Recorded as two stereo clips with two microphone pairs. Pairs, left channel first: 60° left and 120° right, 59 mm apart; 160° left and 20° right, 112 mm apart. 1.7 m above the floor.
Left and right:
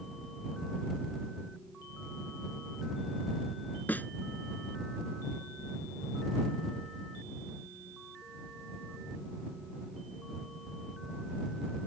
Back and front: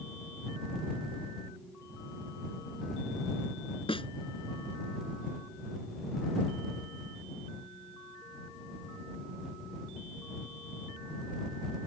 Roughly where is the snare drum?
Behind left.